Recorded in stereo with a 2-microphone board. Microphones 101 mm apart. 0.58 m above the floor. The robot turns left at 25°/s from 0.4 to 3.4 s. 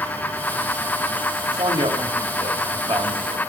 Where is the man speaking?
70° right, 2 m; by 3.4 s 120° right, 2 m.